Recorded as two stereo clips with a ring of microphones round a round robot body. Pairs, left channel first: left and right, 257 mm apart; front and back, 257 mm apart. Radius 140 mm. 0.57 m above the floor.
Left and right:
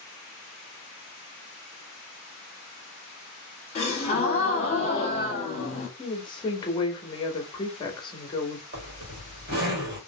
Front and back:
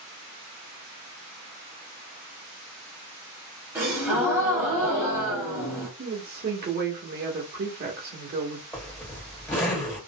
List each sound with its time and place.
3.8 s a gasp: 105° left, 1.0 m
6.0 s a woman speaking: 150° left, 0.8 m
8.7 s a zipper: 80° right, 1.6 m